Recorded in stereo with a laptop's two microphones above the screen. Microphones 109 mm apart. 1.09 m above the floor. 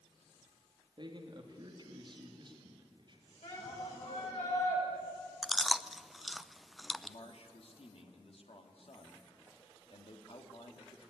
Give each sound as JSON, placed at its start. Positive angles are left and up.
{"t": 1.0, "sound": "a man speaking", "side_deg": -45, "distance_m": 2.5}
{"t": 3.4, "sound": "a shout", "side_deg": 80, "distance_m": 8.5}
{"t": 5.4, "sound": "chewing", "side_deg": 0, "distance_m": 0.5}
{"t": 7.0, "sound": "a man speaking", "side_deg": 65, "distance_m": 1.9}